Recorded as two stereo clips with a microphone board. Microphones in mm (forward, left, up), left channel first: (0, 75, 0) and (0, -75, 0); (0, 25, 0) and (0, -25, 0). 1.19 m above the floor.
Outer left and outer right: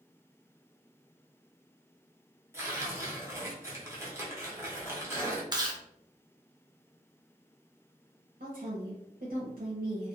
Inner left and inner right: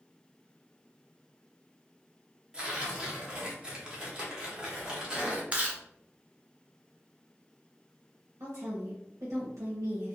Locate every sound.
2.5 s tearing paper: 20° right (ahead or behind), 0.8 m
5.5 s chewing: 30° right (ahead or behind), 0.5 m
8.4 s a woman speaking: 70° right (ahead or behind), 0.7 m